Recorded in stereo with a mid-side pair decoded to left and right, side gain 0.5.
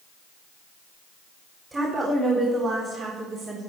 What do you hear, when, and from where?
1.7 s a woman speaking: 25° right, 3.5 m; by 3.7 s 55° right, 4.5 m